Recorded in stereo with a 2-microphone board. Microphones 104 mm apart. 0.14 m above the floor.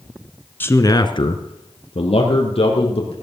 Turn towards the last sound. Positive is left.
turn(degrees=70)  # may be behind; listen again after turning